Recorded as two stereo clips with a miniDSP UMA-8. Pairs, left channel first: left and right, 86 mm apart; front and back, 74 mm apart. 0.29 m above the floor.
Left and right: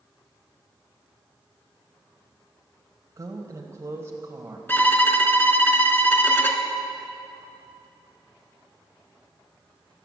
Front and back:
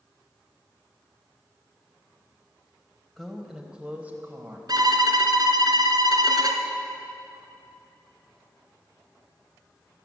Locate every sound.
3.2 s a woman speaking: 85° right, 1.7 m; by 4.6 s 140° right, 1.8 m
4.7 s a violin: 155° left, 1.4 m